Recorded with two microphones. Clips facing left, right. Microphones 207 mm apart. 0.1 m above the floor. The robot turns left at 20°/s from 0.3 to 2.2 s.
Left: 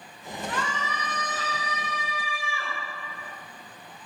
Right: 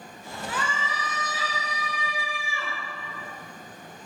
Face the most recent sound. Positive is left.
turn(degrees=-15)  # may be behind; listen again after turning